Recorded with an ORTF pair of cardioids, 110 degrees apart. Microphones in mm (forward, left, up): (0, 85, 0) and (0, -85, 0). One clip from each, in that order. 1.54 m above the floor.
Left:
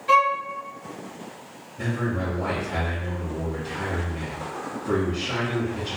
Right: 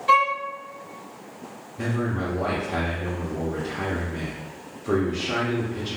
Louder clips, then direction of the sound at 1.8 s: Even; 15° right.